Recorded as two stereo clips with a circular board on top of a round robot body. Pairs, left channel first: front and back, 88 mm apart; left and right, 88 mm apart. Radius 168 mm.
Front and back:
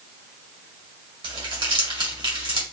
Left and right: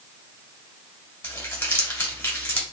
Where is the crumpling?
155° left, 2.0 m.